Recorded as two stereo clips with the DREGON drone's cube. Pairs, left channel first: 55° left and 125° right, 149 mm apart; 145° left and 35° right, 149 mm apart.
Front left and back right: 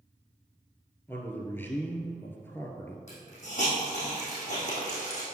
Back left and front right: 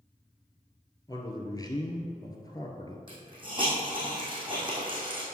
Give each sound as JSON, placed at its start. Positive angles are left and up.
{"t": 1.1, "sound": "a man speaking", "azimuth_deg": 115, "distance_m": 1.2}
{"t": 3.1, "sound": "a hiss", "azimuth_deg": 20, "distance_m": 3.5}